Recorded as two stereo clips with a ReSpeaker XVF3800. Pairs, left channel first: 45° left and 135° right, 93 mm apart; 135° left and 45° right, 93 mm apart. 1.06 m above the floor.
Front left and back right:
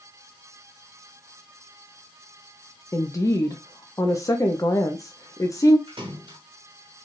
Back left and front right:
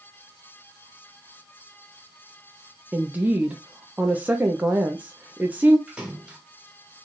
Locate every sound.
2.9 s a woman speaking: 15° left, 0.6 m
5.9 s a splash: 125° right, 1.7 m